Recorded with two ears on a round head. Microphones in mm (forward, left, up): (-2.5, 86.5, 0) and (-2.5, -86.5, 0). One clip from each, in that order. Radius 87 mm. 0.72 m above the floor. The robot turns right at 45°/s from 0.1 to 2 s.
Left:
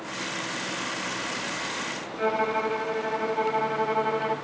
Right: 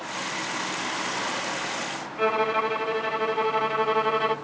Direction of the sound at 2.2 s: 65° right (ahead or behind).